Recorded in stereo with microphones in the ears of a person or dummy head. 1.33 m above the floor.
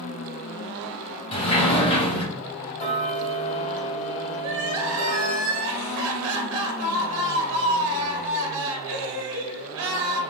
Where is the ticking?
25° left (ahead or behind), 1.5 m.